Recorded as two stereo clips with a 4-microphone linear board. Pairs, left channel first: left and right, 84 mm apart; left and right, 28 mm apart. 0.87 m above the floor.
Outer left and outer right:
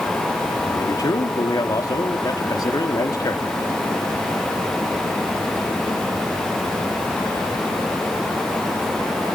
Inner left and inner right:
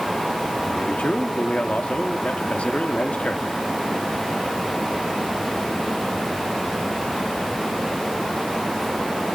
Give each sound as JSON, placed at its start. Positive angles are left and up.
{"t": 0.7, "sound": "a man speaking", "side_deg": 45, "distance_m": 2.0}